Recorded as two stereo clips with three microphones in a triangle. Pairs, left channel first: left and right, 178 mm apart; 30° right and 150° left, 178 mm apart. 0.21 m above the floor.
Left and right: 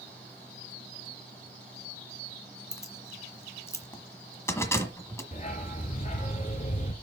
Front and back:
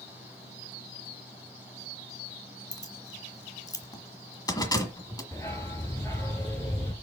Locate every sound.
2.7 s keys jangling: 25° left, 1.2 m
5.3 s a dog barking: 45° left, 1.3 m